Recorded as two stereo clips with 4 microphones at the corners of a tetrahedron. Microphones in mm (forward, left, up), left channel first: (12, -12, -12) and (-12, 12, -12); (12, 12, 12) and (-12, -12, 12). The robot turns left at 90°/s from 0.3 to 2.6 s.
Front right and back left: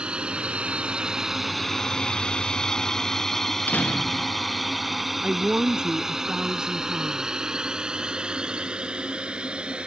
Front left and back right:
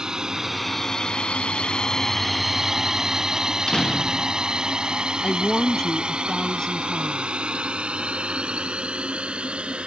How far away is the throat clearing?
No throat clearing in this recording.